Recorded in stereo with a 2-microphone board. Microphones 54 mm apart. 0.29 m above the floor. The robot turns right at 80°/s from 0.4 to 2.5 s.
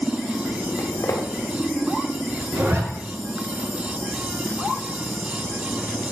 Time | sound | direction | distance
0.8 | footsteps | 65° left (ahead or behind) | 2.5 m
2.5 | a zipper | 60° right (ahead or behind) | 2 m